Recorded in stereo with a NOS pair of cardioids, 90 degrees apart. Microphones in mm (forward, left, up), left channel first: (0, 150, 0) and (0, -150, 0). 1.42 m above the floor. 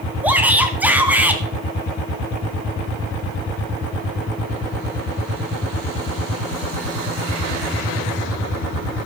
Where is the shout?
5° right, 2.5 m.